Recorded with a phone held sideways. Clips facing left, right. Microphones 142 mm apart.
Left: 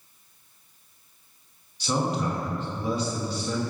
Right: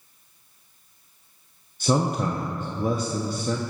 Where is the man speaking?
50° right (ahead or behind), 0.6 m.